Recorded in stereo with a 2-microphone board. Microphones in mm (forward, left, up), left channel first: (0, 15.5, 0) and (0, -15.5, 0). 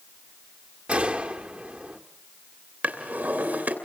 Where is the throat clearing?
No throat clearing in this recording.